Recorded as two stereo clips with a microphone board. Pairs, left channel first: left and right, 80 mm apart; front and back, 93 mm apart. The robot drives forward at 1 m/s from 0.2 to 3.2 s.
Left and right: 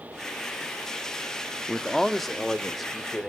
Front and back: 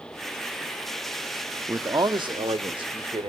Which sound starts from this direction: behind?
A man speaking, at 1.7 s.